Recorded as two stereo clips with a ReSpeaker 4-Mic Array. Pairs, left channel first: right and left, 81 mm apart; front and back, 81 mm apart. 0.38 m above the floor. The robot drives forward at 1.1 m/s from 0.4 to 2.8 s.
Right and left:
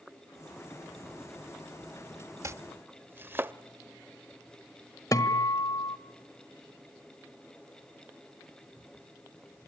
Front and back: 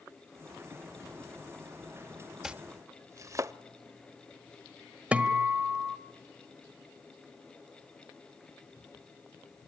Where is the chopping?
95° left, 0.5 m; by 3.5 s 145° left, 0.7 m.